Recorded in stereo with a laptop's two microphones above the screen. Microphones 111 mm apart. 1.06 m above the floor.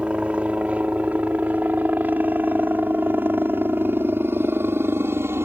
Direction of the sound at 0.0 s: 10° right (ahead or behind).